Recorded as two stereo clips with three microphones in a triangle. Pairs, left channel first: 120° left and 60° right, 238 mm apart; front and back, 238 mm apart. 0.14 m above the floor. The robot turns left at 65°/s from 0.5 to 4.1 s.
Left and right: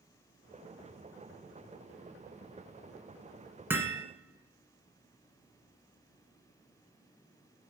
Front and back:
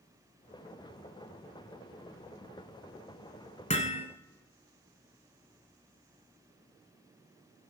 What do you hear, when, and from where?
3.7 s hammering: 15° left, 1.4 m; by 4.0 s 10° right, 1.4 m